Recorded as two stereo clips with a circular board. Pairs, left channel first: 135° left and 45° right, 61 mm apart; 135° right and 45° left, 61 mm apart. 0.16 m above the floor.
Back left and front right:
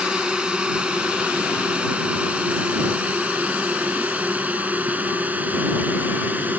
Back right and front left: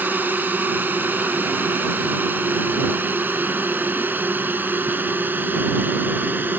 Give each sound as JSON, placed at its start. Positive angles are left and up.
{"t": 0.0, "sound": "a drone", "azimuth_deg": 20}